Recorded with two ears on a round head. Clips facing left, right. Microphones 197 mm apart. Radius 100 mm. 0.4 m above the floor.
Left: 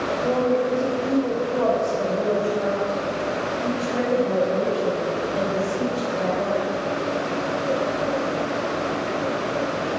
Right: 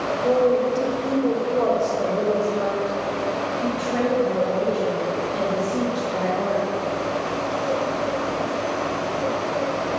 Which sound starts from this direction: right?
A woman speaking, at 0.2 s.